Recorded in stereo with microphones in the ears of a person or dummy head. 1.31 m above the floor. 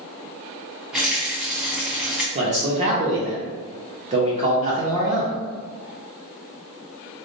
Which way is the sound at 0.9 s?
Centre (ahead or behind).